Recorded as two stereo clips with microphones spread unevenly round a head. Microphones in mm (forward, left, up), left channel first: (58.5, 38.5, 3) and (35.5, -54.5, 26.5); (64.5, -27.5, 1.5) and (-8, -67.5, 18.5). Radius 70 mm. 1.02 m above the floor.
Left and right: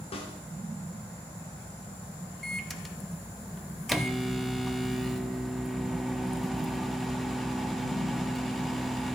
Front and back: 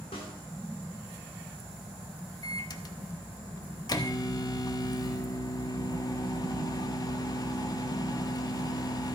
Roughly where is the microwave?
Ahead.